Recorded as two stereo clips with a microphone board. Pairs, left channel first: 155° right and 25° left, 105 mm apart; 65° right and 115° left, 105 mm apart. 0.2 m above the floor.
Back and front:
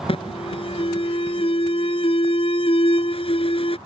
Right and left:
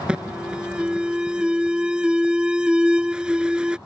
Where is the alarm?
165° right.